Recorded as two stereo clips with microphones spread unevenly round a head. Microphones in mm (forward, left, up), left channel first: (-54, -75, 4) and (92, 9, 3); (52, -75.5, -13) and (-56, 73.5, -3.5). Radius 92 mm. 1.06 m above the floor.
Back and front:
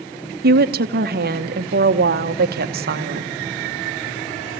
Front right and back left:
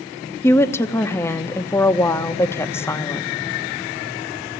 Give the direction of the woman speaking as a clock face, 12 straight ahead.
11 o'clock.